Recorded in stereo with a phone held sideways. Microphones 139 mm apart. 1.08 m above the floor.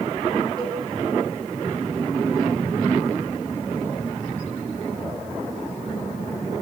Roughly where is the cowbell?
Right.